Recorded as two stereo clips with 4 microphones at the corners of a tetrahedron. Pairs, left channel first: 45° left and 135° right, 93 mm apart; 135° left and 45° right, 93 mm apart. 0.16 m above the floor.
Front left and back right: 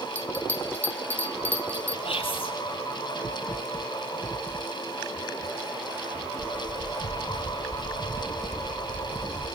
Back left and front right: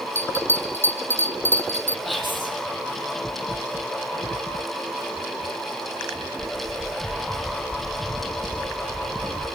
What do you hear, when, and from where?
0.1 s a bell: 100° left, 0.9 m
2.0 s whispering: 45° left, 5 m